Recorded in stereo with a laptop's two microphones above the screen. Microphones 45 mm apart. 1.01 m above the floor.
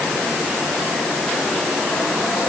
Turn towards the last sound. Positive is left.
No sound to turn to.